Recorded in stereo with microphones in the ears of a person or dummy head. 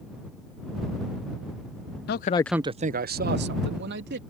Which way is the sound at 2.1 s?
50° left (ahead or behind).